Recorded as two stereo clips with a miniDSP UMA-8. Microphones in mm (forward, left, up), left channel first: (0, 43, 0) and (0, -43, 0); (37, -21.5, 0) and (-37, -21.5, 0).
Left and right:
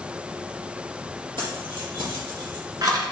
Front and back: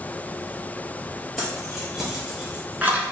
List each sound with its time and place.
1.4 s keys jangling: 85° right, 2.5 m; by 3.1 s 125° right, 1.2 m